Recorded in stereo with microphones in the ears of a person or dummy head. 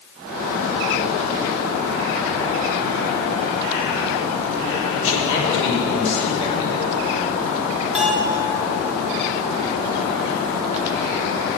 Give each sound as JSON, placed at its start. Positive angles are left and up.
{"t": 5.0, "sound": "a man speaking", "side_deg": 35, "distance_m": 3.5}
{"t": 8.0, "sound": "a bell", "side_deg": -5, "distance_m": 2.0}